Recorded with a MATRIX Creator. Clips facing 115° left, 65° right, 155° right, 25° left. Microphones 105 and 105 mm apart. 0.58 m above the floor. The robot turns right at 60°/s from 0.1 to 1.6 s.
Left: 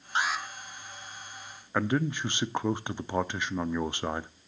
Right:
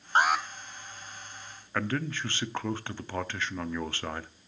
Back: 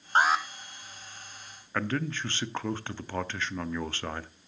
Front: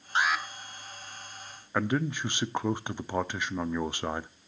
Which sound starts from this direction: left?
A man speaking, at 1.7 s.